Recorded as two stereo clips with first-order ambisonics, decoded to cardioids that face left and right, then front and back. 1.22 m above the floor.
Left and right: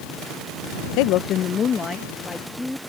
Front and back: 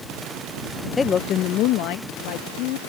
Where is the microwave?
I don't hear a microwave.